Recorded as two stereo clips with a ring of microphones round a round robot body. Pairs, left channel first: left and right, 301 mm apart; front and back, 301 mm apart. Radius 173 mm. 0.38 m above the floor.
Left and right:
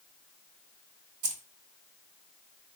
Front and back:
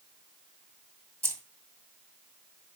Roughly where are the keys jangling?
Right.